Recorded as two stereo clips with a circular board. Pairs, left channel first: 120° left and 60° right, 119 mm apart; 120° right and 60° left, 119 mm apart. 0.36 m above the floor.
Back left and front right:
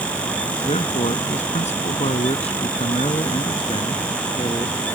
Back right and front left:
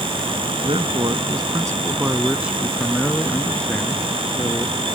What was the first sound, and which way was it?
A man speaking, 95° left.